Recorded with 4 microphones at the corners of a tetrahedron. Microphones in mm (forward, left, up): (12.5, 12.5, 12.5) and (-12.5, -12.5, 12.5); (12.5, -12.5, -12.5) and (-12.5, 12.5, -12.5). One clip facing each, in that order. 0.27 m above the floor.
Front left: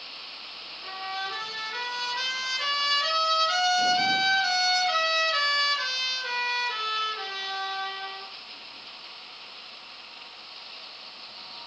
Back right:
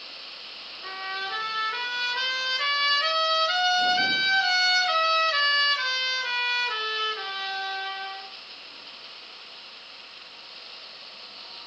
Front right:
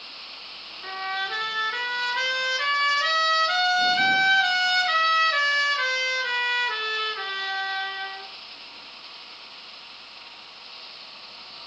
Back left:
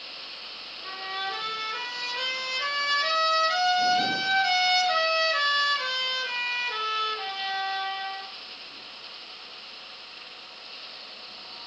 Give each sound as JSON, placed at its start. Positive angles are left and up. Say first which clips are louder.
{"t": 0.8, "sound": "a trumpet", "louder": "back right 1 dB, front right 4 dB", "azimuth_deg": -70, "distance_m": 4.0}